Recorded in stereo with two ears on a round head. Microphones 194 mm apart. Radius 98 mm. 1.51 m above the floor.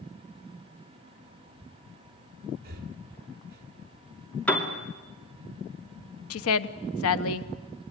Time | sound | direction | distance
2.6 | breathing | 45° right (ahead or behind) | 2 m
4.5 | a piano | 5° left (ahead or behind) | 2.5 m
6.3 | a woman speaking | 75° left (ahead or behind) | 1.1 m